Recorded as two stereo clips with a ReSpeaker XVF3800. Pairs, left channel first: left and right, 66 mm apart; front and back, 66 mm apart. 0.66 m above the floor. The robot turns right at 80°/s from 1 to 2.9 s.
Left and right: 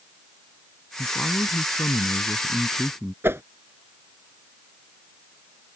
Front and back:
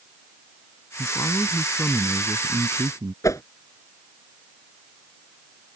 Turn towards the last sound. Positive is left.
turn(degrees=-35)